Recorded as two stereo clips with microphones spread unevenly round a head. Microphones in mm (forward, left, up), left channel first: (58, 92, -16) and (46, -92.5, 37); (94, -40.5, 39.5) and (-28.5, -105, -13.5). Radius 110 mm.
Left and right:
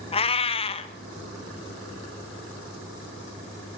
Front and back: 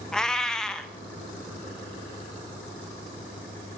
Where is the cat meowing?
30° left, 0.7 m.